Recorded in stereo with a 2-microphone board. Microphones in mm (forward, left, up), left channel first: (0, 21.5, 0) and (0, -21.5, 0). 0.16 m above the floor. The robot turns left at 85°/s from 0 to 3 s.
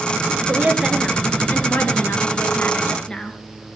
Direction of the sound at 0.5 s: 130° right.